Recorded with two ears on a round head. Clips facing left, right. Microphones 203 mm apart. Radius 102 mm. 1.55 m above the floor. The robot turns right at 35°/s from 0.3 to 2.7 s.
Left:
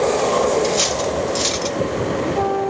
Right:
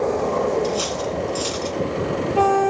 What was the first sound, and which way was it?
Cutlery clinking, 30° left (ahead or behind).